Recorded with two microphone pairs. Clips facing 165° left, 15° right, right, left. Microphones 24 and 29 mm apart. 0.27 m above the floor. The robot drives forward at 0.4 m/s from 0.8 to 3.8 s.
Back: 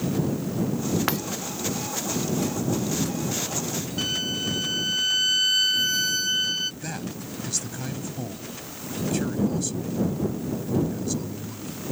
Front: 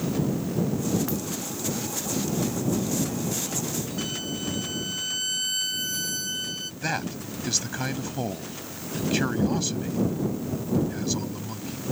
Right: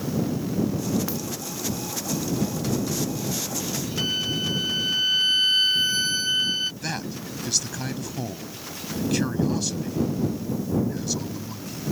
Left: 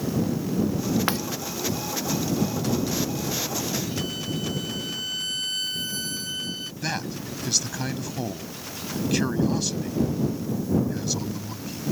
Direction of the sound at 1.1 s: 125° left.